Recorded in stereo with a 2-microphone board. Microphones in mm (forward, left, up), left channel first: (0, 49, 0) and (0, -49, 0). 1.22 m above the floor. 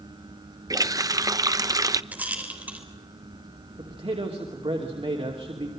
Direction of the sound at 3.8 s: 75° right (ahead or behind).